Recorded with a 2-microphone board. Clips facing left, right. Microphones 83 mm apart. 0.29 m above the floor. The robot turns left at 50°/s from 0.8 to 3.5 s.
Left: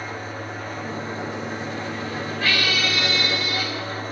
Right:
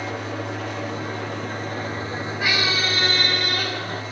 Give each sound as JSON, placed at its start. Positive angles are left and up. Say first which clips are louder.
{"t": 0.0, "sound": "an engine running", "louder": "right 3 dB", "azimuth_deg": -80, "distance_m": 6.0}
{"t": 2.4, "sound": "a squeak", "louder": "even", "azimuth_deg": -20, "distance_m": 0.5}